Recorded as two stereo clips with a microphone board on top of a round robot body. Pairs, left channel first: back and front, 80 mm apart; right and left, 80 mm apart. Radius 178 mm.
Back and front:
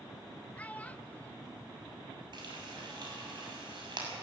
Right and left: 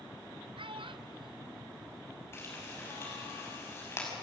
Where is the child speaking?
105° left, 0.9 m.